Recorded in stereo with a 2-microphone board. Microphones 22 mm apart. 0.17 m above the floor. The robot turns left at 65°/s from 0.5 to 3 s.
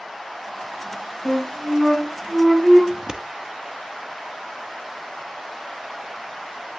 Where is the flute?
5° left, 3 m; by 2.8 s 95° right, 3 m.